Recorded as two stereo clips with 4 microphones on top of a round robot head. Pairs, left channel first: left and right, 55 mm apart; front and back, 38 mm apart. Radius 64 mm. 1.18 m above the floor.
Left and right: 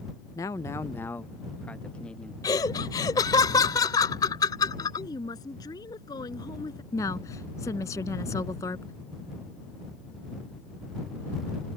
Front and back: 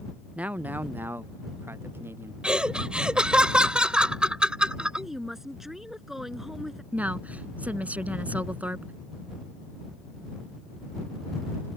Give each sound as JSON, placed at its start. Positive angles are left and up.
{"t": 0.3, "sound": "a man speaking", "azimuth_deg": 125}
{"t": 2.4, "sound": "laughter", "azimuth_deg": 115}
{"t": 5.0, "sound": "a woman speaking", "azimuth_deg": 100}
{"t": 6.9, "sound": "a woman speaking", "azimuth_deg": 130}